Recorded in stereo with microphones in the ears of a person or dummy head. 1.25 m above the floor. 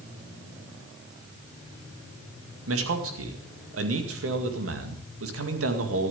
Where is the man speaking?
65° right (ahead or behind), 2 m.